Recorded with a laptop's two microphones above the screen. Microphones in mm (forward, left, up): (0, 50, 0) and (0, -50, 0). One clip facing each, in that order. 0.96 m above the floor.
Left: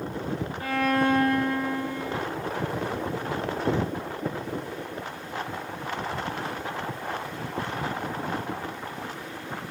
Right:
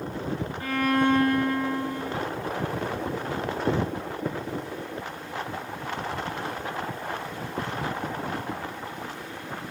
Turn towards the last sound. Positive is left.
turn(degrees=5)  # may be behind; listen again after turning